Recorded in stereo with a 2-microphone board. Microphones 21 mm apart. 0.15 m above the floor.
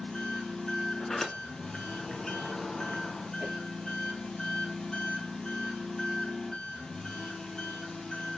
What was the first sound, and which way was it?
An engine running, 40° left (ahead or behind).